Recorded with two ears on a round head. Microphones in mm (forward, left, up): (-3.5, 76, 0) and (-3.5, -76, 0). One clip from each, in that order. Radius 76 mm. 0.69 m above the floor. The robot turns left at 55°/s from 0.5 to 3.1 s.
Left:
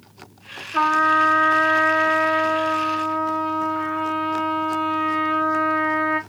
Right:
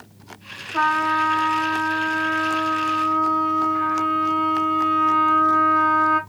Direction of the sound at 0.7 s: 120° left.